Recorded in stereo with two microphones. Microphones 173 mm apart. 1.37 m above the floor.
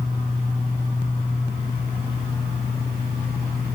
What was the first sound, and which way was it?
Only background noise.